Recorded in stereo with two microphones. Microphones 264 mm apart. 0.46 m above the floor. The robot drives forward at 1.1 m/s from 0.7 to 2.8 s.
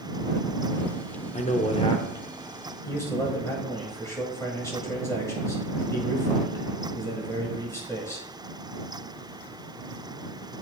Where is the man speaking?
25° left (ahead or behind), 0.8 m; by 8.3 s 10° left (ahead or behind), 1.8 m.